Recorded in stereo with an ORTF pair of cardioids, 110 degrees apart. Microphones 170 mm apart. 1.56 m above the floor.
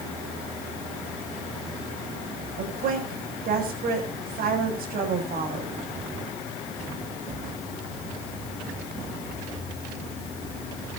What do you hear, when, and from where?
2.6 s a woman speaking: 60° right, 7.5 m